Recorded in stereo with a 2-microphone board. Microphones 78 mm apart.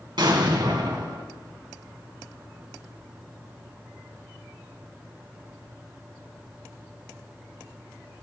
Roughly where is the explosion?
Right.